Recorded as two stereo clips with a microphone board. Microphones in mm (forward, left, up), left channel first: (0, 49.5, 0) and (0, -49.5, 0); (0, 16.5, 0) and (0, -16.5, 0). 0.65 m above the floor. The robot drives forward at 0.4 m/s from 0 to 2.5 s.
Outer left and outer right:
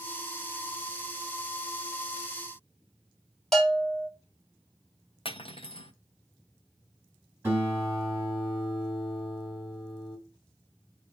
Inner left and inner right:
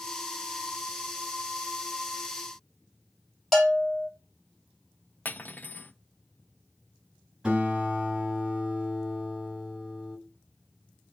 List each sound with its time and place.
3.5 s a bell: 5° left (ahead or behind), 2.5 m
5.2 s cutlery clinking: 65° left (ahead or behind), 0.8 m
7.4 s a guitar: 25° right (ahead or behind), 5.5 m